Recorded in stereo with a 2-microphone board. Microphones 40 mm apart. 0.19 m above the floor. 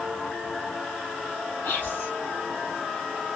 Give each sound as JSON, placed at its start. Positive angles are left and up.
{"t": 1.6, "sound": "whispering", "side_deg": 55, "distance_m": 2.5}